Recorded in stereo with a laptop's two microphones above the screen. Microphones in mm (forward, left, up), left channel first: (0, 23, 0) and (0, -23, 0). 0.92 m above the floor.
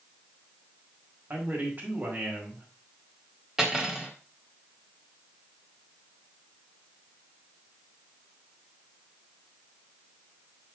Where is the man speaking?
45° right (ahead or behind), 5 m.